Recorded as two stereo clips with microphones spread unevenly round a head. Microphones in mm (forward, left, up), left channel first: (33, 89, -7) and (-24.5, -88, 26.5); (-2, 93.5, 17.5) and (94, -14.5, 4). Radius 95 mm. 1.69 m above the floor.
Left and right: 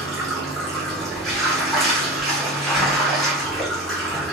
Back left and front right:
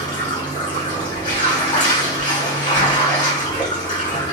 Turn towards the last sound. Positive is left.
turn(degrees=170)